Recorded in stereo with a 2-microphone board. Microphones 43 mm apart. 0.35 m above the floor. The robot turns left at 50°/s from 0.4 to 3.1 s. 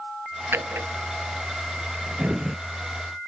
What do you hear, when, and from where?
0.5 s a drawer: 70° right (ahead or behind); by 2.6 s 10° right (ahead or behind)